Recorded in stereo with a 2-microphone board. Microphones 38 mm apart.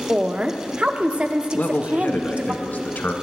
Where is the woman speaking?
30° right (ahead or behind), 0.8 m.